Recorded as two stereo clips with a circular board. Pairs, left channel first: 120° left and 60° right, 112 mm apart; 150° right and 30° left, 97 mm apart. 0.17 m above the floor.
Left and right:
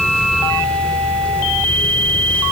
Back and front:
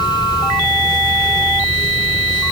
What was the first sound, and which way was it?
Only background noise.